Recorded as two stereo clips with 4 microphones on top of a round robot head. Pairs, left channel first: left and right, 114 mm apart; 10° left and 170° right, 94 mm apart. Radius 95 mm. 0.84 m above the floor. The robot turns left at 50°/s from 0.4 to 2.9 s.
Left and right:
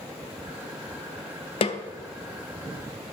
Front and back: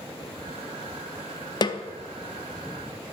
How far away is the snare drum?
About 0.5 m.